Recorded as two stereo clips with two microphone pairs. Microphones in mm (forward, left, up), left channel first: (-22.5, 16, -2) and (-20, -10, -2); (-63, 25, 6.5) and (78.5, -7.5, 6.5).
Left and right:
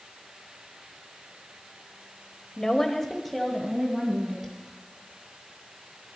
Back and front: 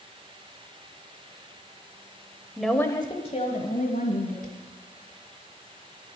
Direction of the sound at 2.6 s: 60° left.